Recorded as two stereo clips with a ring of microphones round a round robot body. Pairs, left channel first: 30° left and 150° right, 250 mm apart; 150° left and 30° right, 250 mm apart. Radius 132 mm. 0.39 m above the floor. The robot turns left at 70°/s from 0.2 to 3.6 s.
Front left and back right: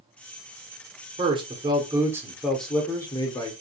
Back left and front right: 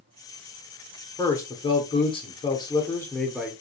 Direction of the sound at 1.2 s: 145° right.